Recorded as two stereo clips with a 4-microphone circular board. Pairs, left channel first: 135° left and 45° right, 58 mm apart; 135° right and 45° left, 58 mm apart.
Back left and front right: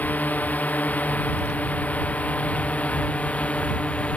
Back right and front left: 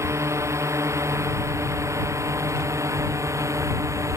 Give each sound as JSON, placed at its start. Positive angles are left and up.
{"t": 0.0, "sound": "a drone", "azimuth_deg": 75}